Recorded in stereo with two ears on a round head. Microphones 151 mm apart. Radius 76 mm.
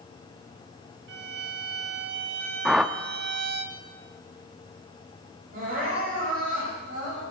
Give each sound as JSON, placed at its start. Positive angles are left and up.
{"t": 1.1, "sound": "a violin", "side_deg": -70, "distance_m": 1.4}
{"t": 2.6, "sound": "a whoosh", "side_deg": -5, "distance_m": 0.6}
{"t": 5.5, "sound": "crying", "side_deg": -60, "distance_m": 7.0}